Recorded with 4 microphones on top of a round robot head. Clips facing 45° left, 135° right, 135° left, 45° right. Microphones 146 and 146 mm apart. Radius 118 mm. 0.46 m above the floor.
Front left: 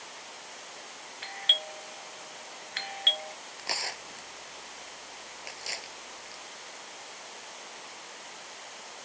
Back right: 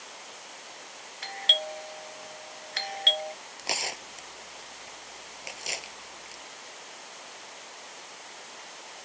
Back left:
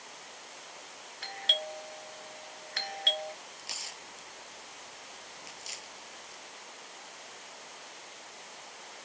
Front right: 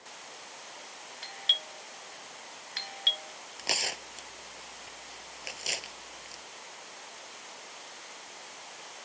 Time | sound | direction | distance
1.2 | a doorbell | 175° left | ?
3.6 | tearing paper | 65° right | ?